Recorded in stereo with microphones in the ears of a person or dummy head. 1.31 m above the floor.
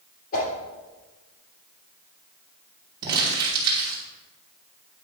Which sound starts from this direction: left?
A whoosh, at 0.3 s.